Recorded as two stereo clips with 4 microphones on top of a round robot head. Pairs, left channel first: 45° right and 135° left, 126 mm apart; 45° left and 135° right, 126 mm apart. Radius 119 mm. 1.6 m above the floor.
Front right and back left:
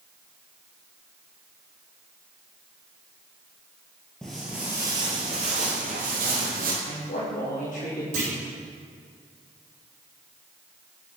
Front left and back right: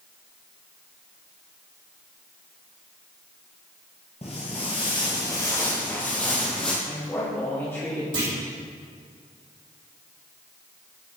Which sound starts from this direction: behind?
A clunk, at 8.1 s.